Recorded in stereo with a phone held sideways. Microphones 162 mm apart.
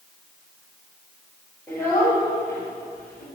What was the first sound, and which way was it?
A child speaking, 5° left (ahead or behind).